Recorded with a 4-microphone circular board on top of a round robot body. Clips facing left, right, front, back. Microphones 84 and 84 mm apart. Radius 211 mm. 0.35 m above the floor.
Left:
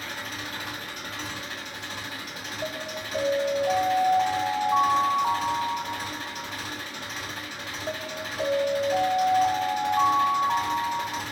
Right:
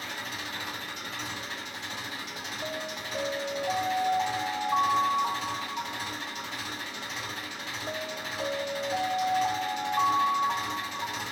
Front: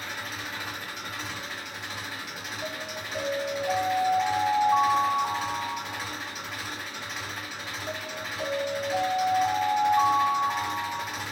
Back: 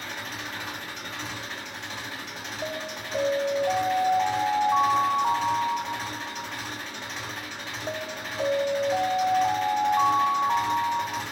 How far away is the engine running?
About 1.6 m.